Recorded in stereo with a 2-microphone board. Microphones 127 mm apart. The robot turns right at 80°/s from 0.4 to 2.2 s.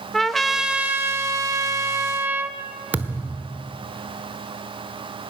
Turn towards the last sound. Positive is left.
turn(degrees=-15)  # may be behind; listen again after turning